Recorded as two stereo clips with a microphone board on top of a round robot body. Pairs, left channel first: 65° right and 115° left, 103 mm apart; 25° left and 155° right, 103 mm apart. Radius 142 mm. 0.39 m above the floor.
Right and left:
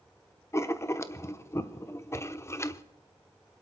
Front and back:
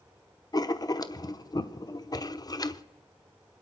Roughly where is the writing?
Ahead.